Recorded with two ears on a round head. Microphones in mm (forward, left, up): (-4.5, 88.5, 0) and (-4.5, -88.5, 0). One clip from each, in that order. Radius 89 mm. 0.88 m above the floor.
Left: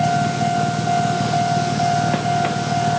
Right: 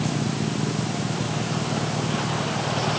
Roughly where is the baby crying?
No baby crying in this recording.